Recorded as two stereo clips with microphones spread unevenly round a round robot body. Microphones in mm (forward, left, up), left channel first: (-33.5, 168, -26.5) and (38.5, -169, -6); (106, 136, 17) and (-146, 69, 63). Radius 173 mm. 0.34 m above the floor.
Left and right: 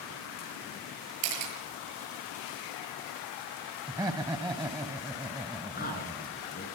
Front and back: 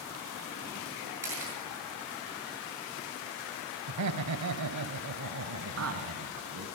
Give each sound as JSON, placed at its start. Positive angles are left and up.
{"t": 1.2, "sound": "a camera shutter", "azimuth_deg": -80, "distance_m": 7.5}
{"t": 3.9, "sound": "laughter", "azimuth_deg": -160, "distance_m": 1.6}
{"t": 5.8, "sound": "a man speaking", "azimuth_deg": 170, "distance_m": 5.0}